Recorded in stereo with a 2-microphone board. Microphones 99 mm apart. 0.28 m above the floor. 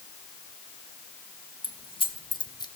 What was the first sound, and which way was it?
Keys jangling, 65° left (ahead or behind).